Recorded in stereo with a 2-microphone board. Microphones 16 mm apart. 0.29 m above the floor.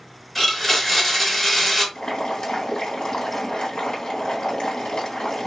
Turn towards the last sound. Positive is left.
turn(degrees=70)  # may be behind; listen again after turning